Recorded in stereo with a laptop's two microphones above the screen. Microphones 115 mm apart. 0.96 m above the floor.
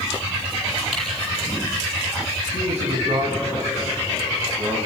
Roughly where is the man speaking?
Right.